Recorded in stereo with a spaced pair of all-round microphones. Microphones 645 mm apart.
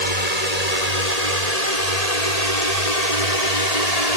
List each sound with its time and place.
0.0 s a drone: 80° left; by 4.2 s 75° left (ahead or behind)